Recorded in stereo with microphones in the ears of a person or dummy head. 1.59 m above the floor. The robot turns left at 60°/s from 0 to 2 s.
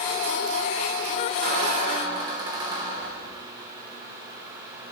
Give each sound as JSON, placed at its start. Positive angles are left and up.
{"t": 1.4, "sound": "a squeak", "azimuth_deg": -110, "distance_m": 1.0}